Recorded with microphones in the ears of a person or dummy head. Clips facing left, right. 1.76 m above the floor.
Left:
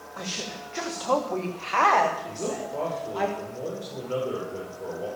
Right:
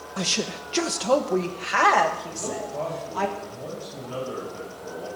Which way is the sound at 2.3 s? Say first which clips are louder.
Left 1 dB; 50° left (ahead or behind).